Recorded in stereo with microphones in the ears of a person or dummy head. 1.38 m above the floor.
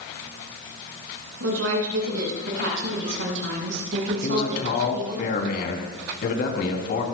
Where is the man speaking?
70° left (ahead or behind), 3 m.